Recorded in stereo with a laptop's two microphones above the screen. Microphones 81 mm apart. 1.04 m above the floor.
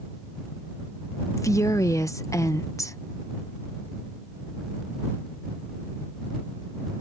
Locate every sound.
1.4 s a woman speaking: 40° left (ahead or behind)